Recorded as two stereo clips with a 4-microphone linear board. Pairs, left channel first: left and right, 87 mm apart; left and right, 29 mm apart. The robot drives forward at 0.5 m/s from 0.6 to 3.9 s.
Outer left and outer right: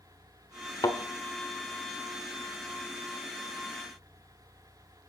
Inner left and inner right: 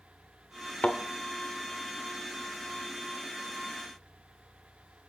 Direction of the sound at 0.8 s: 45° left (ahead or behind).